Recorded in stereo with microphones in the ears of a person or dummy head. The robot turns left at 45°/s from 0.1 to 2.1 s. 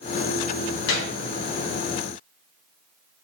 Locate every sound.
0.9 s a gunshot: 75° left (ahead or behind), 1.1 m; by 1.2 s 65° left (ahead or behind), 1.1 m